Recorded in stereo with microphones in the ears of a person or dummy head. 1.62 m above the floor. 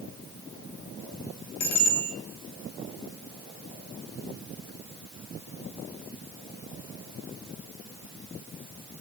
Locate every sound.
1.6 s a bicycle bell: 55° left (ahead or behind), 3 m